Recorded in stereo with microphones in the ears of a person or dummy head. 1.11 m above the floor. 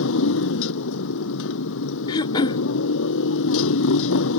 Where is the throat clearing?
25° left (ahead or behind).